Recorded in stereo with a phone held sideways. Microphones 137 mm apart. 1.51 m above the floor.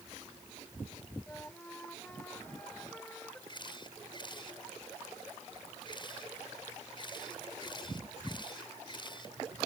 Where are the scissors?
I don't hear scissors.